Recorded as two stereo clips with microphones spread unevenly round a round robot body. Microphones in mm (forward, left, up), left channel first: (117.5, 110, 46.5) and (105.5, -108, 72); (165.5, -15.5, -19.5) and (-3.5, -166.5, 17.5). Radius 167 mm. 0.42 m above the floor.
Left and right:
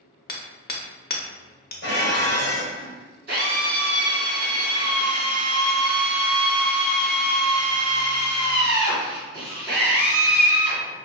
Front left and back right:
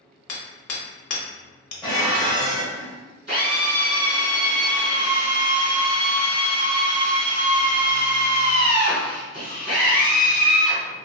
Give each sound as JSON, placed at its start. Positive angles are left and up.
{"t": 0.3, "sound": "hammering", "azimuth_deg": 40, "distance_m": 0.6}
{"t": 1.8, "sound": "dishes clattering", "azimuth_deg": 130, "distance_m": 1.1}
{"t": 3.3, "sound": "a drill", "azimuth_deg": -90, "distance_m": 1.5}